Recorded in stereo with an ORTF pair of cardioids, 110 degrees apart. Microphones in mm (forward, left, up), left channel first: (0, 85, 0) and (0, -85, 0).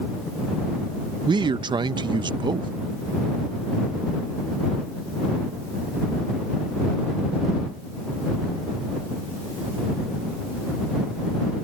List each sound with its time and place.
1.3 s a man speaking: 25° right